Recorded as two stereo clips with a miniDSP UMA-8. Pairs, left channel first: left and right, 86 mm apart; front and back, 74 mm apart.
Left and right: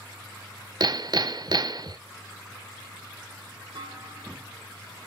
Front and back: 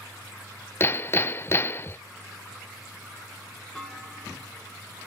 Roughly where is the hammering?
Ahead right.